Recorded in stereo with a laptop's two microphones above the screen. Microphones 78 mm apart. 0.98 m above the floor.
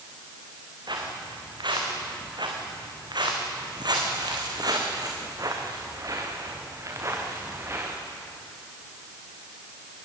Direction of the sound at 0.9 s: 75° right (ahead or behind).